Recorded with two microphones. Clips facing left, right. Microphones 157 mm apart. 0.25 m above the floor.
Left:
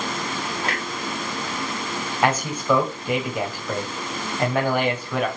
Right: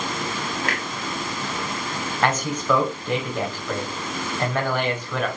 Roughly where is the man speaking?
Centre.